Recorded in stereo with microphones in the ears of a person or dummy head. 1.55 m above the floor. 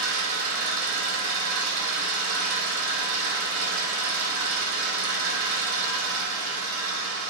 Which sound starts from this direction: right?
An engine running, at 0.0 s.